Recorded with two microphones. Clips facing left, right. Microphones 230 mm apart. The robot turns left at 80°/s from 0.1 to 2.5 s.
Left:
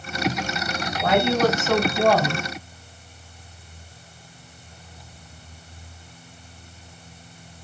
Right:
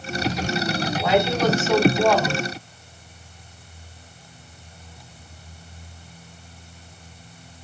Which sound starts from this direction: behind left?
A woman speaking, at 1.0 s.